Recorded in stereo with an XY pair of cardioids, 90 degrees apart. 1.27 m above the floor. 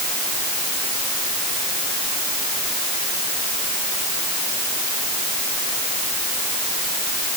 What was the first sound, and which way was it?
Only background noise.